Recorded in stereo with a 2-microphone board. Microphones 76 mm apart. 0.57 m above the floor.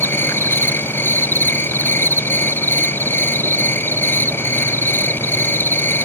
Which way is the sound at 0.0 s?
30° left (ahead or behind).